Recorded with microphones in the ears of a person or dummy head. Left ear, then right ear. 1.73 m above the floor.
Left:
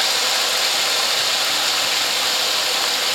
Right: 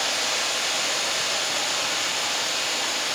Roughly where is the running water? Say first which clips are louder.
Left 6 dB; left.